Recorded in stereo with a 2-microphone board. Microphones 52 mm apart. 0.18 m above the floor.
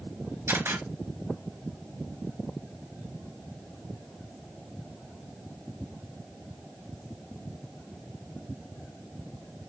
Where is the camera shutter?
60° right (ahead or behind), 3 m.